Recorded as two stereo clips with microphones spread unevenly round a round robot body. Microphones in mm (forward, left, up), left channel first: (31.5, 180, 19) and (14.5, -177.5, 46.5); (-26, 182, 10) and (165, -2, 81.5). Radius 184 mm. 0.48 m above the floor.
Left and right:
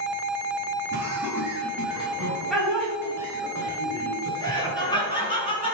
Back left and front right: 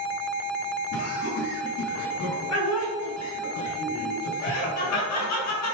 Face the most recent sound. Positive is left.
turn(degrees=165)